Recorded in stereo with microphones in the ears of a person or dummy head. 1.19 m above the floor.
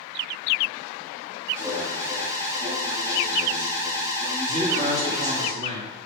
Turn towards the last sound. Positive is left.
turn(degrees=-35)  # may be behind; listen again after turning